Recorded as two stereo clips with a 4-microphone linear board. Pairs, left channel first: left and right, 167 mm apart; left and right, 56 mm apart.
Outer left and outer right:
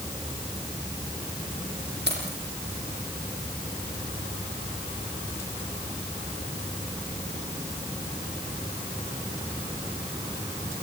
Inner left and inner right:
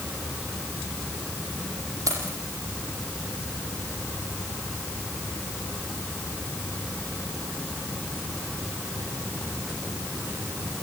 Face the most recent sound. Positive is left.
turn(degrees=-85)